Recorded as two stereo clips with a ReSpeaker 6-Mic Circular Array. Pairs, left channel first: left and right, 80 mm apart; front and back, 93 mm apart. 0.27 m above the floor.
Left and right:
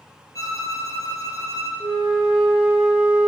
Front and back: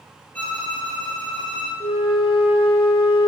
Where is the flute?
15° right, 1.4 m.